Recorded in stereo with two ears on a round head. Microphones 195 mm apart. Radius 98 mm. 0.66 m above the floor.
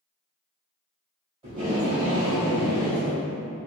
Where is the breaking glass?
I don't hear breaking glass.